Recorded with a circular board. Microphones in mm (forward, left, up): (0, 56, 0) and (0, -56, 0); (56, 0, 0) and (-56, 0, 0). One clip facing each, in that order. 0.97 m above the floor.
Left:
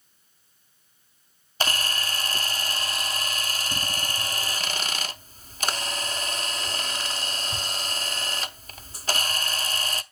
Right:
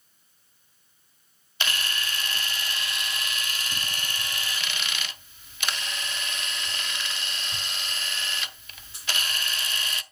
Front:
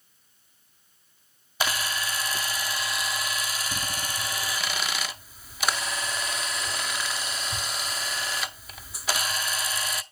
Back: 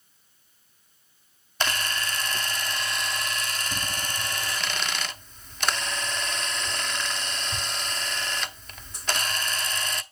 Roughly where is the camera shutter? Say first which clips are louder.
Left 3 dB, even; left.